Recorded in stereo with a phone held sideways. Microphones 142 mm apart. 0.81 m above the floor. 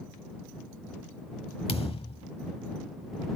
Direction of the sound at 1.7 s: 45° left (ahead or behind).